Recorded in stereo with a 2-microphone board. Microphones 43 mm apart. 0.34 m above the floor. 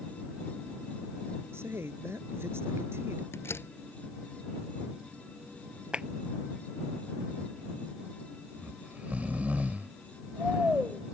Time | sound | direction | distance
1.5 | a man speaking | 75° right (ahead or behind) | ?
3.3 | a door slam | 80° left | ?
5.9 | a clap | 25° right (ahead or behind) | ?
8.6 | snoring | 40° right (ahead or behind) | ?